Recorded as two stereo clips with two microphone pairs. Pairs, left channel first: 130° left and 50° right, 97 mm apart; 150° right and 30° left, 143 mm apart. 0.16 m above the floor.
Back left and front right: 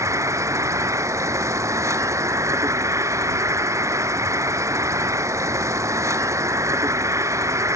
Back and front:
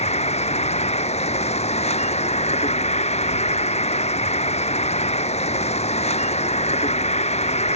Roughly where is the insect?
Right.